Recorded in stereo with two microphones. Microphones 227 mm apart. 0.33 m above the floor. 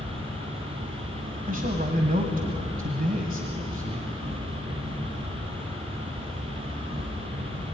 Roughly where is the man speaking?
Right.